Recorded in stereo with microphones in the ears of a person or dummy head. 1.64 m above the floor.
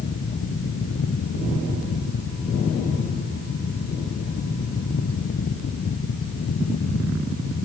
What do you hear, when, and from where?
Only background noise.